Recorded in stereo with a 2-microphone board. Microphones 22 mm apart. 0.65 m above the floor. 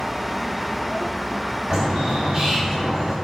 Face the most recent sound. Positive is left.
turn(degrees=-30)  # may be behind; listen again after turning